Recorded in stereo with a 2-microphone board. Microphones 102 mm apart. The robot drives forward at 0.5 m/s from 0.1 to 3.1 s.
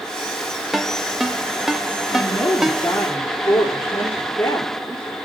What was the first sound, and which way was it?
A ringtone, centre (ahead or behind).